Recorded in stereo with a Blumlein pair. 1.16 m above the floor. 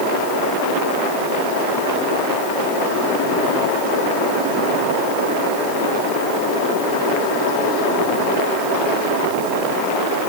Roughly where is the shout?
I don't hear a shout.